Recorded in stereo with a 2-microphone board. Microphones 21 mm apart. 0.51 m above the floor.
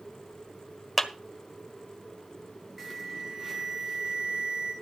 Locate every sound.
1.0 s a clap: 10° left (ahead or behind), 1.5 m
2.8 s an alarm: 10° right (ahead or behind), 3.5 m